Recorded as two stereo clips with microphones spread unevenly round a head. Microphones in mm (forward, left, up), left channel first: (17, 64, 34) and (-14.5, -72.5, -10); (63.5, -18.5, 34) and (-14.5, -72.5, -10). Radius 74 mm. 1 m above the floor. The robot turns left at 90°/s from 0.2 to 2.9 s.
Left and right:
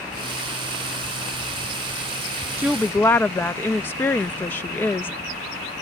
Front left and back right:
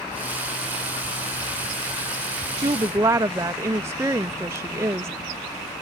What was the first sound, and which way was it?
A woman speaking, 170° right.